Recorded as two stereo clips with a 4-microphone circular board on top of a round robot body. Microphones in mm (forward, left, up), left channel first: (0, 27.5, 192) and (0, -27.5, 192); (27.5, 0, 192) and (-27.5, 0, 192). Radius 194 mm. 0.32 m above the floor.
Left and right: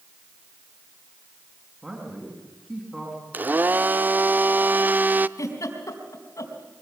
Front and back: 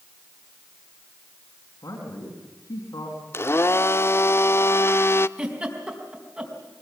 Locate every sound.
1.8 s a man speaking: 10° right, 5 m
3.3 s a blender: 35° right, 0.7 m
5.4 s a giggle: 110° left, 4 m